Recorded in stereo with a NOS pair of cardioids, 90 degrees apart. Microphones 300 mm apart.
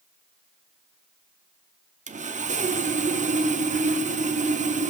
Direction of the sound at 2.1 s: 25° right.